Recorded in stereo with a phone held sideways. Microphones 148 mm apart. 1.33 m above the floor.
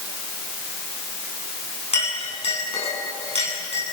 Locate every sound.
1.9 s a clink: 45° left (ahead or behind), 9 m